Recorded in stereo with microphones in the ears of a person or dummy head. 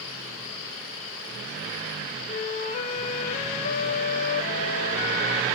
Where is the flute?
30° left (ahead or behind), 1.5 m.